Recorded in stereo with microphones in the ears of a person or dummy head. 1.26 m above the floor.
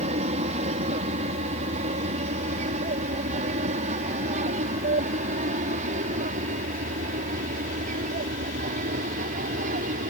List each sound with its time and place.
0.0 s an aircraft: 35° right (ahead or behind); by 10.1 s 45° right (ahead or behind)